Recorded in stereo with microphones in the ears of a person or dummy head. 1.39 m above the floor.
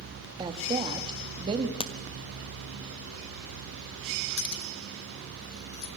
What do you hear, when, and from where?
0.4 s a woman speaking: 20° right (ahead or behind), 2 m
1.8 s a crack: 30° left (ahead or behind), 1.1 m
4.4 s keys jangling: 60° left (ahead or behind), 1.1 m